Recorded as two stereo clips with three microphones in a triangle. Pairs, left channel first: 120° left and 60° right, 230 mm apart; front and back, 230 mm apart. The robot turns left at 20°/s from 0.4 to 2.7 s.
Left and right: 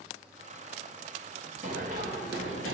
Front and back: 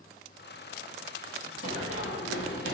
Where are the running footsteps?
Straight ahead, 1.7 m; by 2.7 s 40° right, 1.2 m.